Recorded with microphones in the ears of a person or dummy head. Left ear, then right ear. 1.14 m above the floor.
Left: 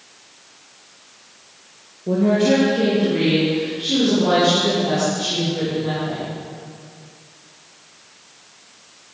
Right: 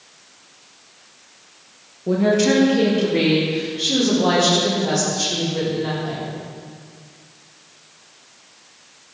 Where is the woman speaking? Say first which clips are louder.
Even; 65° right (ahead or behind), 1.2 m; by 6.3 s 85° right, 7 m.